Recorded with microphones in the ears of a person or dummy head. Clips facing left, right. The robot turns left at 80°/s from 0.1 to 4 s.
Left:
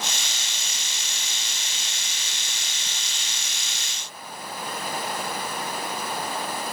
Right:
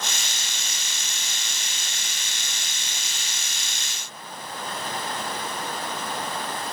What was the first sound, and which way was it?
Only background noise.